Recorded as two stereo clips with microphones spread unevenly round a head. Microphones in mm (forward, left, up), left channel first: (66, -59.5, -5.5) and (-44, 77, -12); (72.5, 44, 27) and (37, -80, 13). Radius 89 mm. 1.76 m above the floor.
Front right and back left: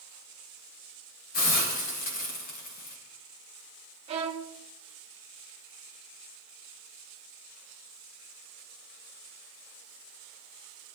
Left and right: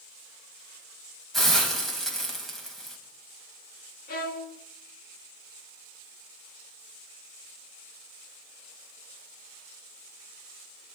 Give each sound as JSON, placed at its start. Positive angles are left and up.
{"t": 1.3, "sound": "a hiss", "azimuth_deg": -15, "distance_m": 5.0}
{"t": 4.1, "sound": "a violin", "azimuth_deg": 70, "distance_m": 2.5}